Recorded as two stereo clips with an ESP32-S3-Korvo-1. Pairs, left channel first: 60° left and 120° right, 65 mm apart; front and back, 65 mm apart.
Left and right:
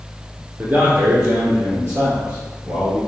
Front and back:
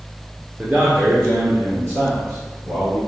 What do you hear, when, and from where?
0.6 s a man speaking: 140° right, 1.2 m; by 3.0 s 150° right, 2 m